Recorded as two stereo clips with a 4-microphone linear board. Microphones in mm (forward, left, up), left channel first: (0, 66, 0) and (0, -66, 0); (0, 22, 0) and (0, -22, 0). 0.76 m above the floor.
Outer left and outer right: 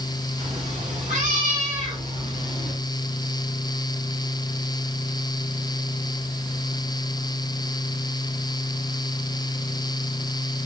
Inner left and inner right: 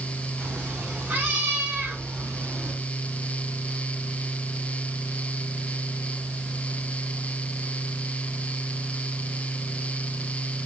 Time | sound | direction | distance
0.4 | a cat meowing | 65° right (ahead or behind) | 1.7 m